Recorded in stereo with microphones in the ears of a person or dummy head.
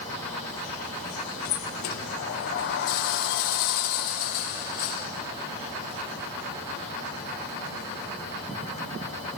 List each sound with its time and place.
1.4 s a sliding door: 55° left (ahead or behind), 0.6 m